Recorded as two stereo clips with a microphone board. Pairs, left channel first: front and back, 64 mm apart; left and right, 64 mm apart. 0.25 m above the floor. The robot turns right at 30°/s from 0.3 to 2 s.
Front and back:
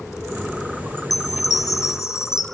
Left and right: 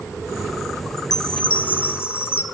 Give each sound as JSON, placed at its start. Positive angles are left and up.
{"t": 1.0, "sound": "a chime", "azimuth_deg": 5, "distance_m": 1.0}